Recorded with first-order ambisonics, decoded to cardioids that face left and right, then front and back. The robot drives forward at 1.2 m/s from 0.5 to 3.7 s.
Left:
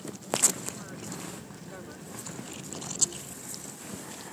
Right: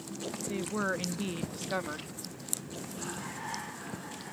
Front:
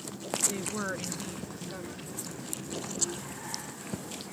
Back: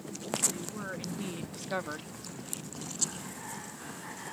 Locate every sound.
0.5 s a woman speaking: 50° right; by 2.2 s 145° right